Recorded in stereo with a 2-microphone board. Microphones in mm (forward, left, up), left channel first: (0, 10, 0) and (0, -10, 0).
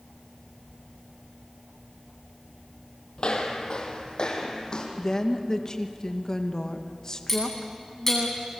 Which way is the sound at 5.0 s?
35° left (ahead or behind).